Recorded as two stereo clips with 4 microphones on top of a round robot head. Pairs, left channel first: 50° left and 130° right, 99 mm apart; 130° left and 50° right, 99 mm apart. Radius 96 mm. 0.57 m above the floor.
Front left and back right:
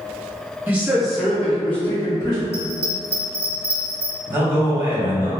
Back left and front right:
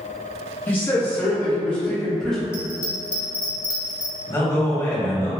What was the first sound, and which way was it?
A man speaking, 175° left.